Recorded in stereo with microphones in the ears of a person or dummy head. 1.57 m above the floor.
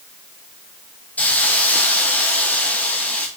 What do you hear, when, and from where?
1.2 s a hiss: 5° left (ahead or behind), 0.6 m